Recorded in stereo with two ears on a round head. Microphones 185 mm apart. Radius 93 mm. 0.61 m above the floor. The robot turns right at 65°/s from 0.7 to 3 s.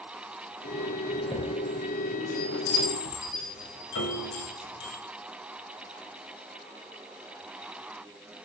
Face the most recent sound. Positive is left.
turn(degrees=75)  # may be behind; listen again after turning